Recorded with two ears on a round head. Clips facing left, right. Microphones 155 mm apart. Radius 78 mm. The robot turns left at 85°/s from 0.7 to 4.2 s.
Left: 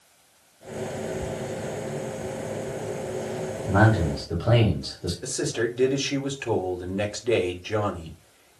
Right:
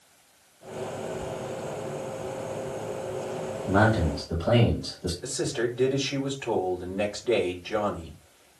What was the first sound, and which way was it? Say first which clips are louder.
A man speaking: left 1 dB; 170° right.